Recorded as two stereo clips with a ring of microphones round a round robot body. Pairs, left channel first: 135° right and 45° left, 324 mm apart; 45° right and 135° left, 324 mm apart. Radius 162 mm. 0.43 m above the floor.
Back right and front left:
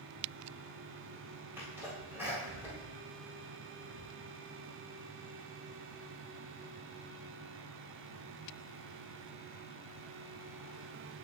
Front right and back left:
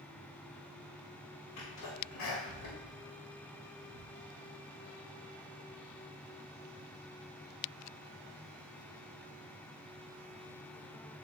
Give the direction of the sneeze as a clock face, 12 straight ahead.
1 o'clock.